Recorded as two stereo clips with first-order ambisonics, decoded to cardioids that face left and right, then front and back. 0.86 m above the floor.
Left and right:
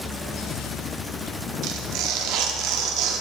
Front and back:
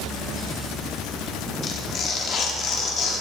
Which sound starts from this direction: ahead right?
Tearing paper, at 1.6 s.